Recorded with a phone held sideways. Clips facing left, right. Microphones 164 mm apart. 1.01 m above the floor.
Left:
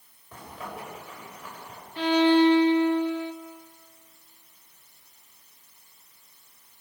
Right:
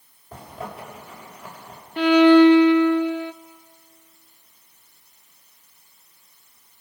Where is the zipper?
30° right (ahead or behind), 5.5 m.